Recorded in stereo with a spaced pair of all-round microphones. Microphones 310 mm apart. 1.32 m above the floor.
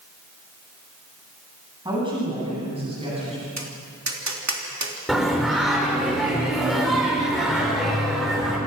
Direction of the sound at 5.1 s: Centre (ahead or behind).